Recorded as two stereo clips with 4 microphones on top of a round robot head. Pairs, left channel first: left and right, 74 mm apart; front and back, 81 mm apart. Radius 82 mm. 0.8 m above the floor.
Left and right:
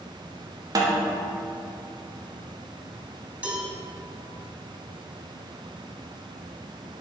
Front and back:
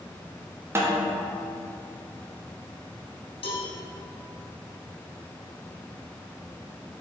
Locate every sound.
0.8 s a snare drum: 120° right, 1.3 m
3.4 s a cowbell: 20° right, 2.5 m